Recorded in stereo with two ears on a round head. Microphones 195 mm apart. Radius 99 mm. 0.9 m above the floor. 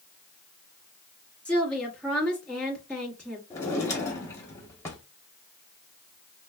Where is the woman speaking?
5° left (ahead or behind), 1.8 m.